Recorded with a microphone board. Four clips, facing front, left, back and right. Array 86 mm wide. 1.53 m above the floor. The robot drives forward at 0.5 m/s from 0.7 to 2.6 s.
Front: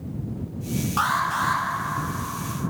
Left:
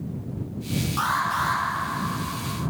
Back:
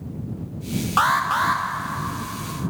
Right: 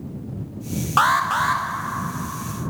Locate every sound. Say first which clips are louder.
1.0 s an alarm: right 7 dB, back 4 dB; 120° right, 0.6 m; by 1.6 s 140° right, 0.8 m